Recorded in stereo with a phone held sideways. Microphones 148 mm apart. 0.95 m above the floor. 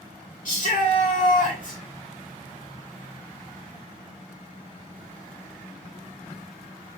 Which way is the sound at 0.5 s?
60° left (ahead or behind).